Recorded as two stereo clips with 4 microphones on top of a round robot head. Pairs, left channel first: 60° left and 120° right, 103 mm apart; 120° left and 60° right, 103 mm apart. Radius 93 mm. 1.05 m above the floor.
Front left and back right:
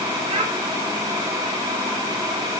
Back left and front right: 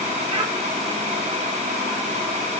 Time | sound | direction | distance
0.3 | a child speaking | 95° right | 3.5 m